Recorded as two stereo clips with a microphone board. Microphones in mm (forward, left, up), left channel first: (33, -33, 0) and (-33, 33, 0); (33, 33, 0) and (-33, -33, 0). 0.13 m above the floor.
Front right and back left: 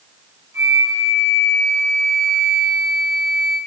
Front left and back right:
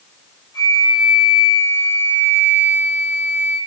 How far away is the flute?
About 1.0 m.